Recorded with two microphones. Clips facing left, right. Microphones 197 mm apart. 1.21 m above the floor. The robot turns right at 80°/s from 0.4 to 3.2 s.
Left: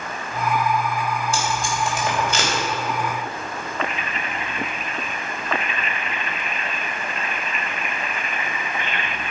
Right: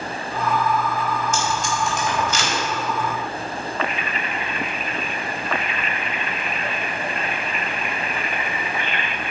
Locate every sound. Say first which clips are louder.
1.3 s tape being pulled: right 1 dB; 35° left (ahead or behind), 4 m; by 2.5 s 50° left (ahead or behind), 4 m